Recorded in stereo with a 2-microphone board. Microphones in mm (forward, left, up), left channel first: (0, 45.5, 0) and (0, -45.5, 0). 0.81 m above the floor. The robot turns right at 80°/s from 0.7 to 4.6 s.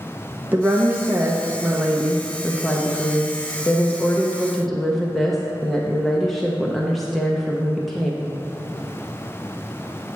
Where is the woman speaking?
20° right (ahead or behind), 0.6 m; by 8.3 s centre (ahead or behind), 0.6 m.